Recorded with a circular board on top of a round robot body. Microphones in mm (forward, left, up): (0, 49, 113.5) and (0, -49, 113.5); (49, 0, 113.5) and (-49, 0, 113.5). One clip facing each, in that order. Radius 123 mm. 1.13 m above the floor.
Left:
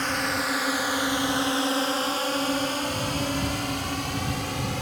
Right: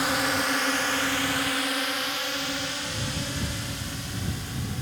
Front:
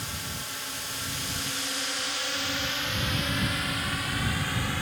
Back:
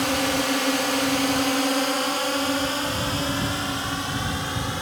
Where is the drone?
170° right; by 4.8 s 110° left.